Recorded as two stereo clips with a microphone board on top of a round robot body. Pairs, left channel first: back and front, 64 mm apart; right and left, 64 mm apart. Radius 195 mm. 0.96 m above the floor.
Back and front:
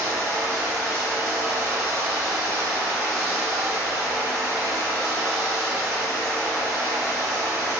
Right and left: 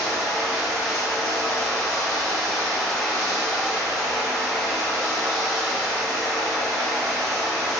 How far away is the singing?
I don't hear singing.